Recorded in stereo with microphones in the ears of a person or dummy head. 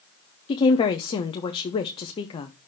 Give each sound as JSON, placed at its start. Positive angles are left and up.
{"t": 0.5, "sound": "a woman speaking", "side_deg": 30, "distance_m": 0.6}